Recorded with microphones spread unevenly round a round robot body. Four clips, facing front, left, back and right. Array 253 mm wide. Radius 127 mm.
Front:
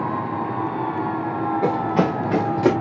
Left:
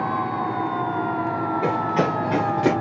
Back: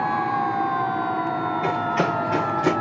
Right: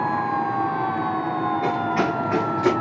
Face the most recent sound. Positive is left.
turn(degrees=15)